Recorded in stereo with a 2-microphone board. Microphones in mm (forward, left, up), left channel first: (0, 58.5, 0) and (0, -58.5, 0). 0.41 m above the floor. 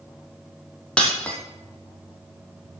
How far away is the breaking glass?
About 2.5 m.